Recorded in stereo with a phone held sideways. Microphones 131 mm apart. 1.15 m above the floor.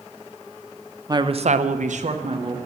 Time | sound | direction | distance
1.1 | a woman speaking | 30° right (ahead or behind) | 0.7 m